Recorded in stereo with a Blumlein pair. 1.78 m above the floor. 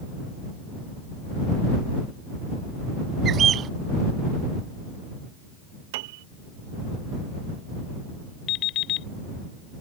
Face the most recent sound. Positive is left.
turn(degrees=35)